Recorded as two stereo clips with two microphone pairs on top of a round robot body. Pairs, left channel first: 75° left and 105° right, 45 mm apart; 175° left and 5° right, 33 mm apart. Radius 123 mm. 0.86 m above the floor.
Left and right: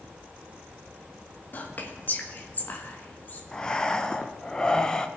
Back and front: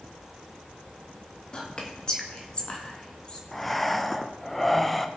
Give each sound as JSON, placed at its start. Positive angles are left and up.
{"t": 1.5, "sound": "whispering", "azimuth_deg": 115, "distance_m": 1.9}
{"t": 3.5, "sound": "breathing", "azimuth_deg": 115, "distance_m": 0.9}